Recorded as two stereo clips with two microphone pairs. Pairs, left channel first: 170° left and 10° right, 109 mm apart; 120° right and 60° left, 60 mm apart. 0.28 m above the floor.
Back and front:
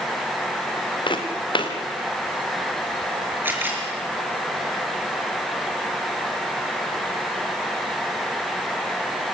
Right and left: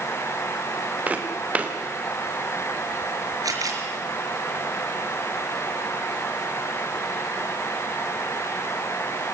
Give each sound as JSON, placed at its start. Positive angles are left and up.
{"t": 1.1, "sound": "footsteps", "azimuth_deg": 125, "distance_m": 3.5}
{"t": 3.4, "sound": "a camera shutter", "azimuth_deg": 60, "distance_m": 4.5}